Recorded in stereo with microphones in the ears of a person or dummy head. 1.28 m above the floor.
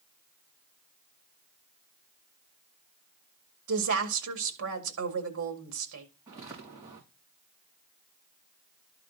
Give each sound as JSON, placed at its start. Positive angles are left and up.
{"t": 3.7, "sound": "a woman speaking", "side_deg": -70, "distance_m": 1.8}
{"t": 6.3, "sound": "footsteps", "side_deg": -10, "distance_m": 3.5}